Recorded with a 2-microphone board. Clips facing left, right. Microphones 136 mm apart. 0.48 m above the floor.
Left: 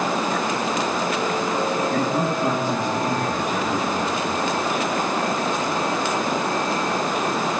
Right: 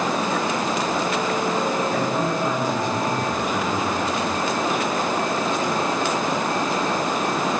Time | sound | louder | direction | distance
1.9 | a man speaking | left 1 dB | 45° left (ahead or behind) | 9 m